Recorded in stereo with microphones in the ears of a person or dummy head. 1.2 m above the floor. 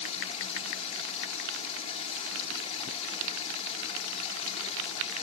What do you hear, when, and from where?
0.0 s running water: 35° left (ahead or behind)